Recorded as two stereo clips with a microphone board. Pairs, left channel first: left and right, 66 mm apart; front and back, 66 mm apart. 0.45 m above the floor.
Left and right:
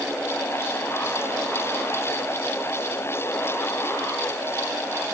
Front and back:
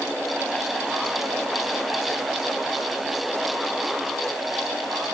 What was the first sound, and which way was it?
Only background noise.